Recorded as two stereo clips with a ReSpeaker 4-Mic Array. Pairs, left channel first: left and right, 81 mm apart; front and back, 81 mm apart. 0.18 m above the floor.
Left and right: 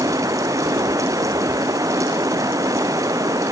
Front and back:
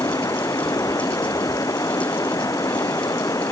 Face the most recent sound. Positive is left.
turn(degrees=-45)